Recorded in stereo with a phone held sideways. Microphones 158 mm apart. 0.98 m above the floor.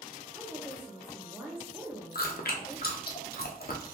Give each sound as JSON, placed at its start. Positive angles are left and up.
{"t": 0.3, "sound": "a woman speaking", "side_deg": -15, "distance_m": 0.7}
{"t": 2.1, "sound": "chewing", "side_deg": 75, "distance_m": 0.6}